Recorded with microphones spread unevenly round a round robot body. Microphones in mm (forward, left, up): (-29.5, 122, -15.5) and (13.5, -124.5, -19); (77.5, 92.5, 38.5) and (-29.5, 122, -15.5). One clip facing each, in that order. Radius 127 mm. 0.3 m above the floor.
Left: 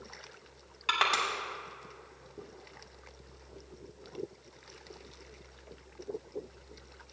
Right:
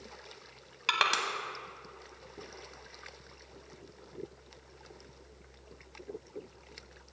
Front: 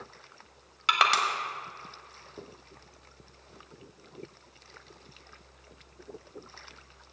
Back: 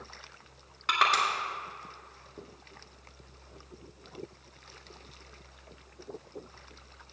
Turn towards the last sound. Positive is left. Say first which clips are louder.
# left 1 dB, front 1 dB
turn(degrees=-20)